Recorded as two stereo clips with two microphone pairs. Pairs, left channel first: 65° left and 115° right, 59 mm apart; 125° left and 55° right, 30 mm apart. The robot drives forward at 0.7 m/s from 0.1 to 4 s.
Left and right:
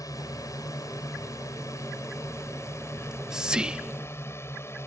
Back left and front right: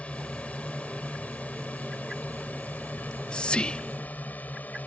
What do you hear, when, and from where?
0.0 s a drone: 85° left; by 4.9 s 110° left
3.0 s whispering: 155° left; by 4.3 s 170° left